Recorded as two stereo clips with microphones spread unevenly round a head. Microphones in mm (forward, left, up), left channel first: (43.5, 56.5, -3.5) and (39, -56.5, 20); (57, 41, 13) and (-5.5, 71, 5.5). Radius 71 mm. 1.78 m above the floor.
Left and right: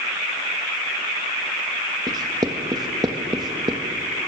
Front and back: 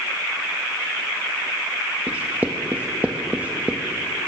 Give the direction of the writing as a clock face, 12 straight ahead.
4 o'clock.